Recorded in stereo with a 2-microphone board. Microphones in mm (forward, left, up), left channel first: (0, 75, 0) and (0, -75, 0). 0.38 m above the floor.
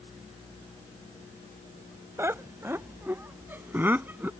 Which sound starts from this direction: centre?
Laughter, at 2.2 s.